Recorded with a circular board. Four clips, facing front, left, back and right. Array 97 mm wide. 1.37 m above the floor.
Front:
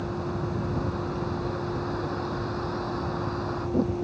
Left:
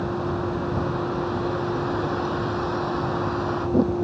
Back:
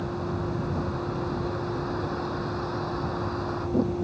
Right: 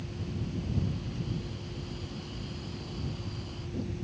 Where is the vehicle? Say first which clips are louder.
Left 14 dB, even; 90° left.